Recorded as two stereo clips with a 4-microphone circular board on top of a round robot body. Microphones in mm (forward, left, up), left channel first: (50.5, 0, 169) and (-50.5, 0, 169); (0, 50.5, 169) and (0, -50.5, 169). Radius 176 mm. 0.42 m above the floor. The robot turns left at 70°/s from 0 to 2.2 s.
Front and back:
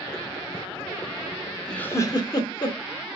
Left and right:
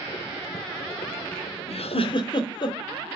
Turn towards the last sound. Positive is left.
turn(degrees=45)